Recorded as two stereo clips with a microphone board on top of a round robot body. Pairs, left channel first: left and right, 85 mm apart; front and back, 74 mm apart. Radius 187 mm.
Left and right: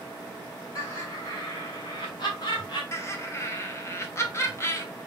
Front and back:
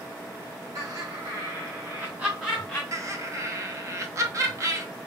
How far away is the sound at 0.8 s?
About 2.5 m.